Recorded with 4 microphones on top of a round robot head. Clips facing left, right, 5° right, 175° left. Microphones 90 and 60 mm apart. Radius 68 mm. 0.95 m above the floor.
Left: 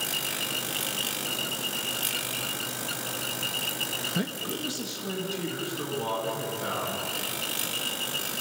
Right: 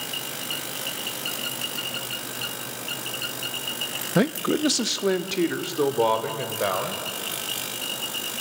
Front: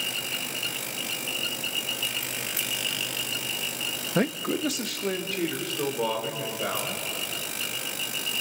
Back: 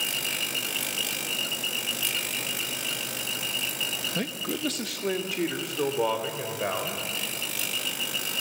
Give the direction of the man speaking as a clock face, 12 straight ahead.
2 o'clock.